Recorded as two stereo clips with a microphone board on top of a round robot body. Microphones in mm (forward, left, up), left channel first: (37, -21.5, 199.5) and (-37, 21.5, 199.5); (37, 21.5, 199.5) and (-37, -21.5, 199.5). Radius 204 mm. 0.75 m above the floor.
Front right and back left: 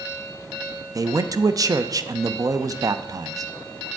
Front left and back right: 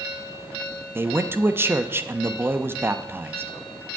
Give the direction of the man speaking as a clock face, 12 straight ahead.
7 o'clock.